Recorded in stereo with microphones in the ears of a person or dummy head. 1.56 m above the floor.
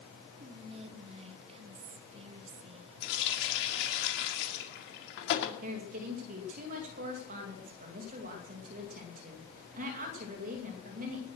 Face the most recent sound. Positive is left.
turn(degrees=-45)  # may be behind; listen again after turning